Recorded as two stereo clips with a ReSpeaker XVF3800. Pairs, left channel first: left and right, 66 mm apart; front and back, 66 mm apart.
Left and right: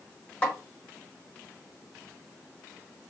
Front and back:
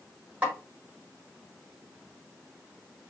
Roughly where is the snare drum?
Behind left.